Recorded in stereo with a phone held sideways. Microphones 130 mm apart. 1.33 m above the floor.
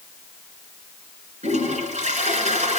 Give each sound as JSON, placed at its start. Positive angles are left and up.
{"t": 1.4, "sound": "a toilet flushing", "side_deg": -70, "distance_m": 4.5}